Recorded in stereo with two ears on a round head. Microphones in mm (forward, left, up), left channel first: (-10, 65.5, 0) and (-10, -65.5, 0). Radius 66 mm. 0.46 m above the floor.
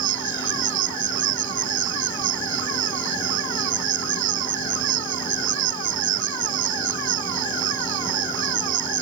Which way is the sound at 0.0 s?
60° right (ahead or behind).